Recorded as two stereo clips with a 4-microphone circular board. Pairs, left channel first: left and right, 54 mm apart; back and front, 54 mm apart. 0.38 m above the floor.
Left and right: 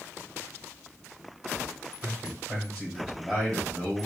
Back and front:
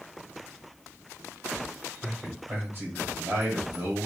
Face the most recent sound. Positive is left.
turn(degrees=-20)